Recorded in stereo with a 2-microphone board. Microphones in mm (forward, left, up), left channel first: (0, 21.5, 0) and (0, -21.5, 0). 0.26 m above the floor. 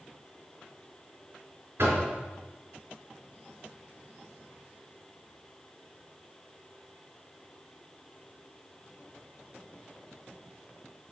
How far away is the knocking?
About 3 m.